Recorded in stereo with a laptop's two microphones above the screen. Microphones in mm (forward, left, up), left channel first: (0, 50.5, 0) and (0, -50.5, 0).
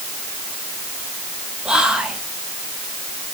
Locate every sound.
1.6 s whispering: 10° right (ahead or behind), 1.1 m